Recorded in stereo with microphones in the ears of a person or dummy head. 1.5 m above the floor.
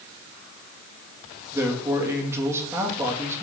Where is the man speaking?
15° right (ahead or behind), 2.5 m.